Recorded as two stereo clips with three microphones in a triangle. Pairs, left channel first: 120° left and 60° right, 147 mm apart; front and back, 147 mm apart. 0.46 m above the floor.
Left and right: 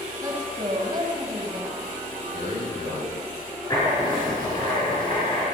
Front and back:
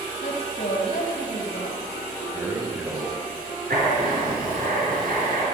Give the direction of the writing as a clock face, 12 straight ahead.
6 o'clock.